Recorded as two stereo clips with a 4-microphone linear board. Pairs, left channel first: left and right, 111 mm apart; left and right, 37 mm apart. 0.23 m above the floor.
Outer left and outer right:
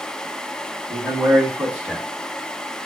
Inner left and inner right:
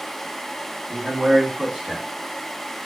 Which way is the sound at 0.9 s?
15° right (ahead or behind).